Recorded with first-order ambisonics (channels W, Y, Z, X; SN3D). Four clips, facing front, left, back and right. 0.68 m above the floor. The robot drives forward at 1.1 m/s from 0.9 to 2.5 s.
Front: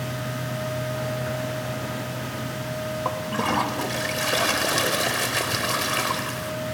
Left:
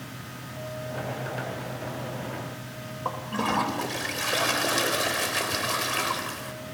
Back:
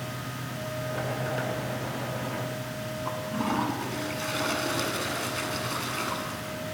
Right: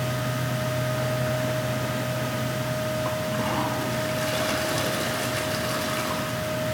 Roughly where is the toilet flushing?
Ahead.